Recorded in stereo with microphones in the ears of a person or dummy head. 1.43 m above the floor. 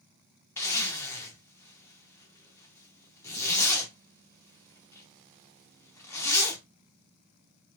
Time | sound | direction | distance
0.6 | a zipper | 15° left (ahead or behind) | 0.6 m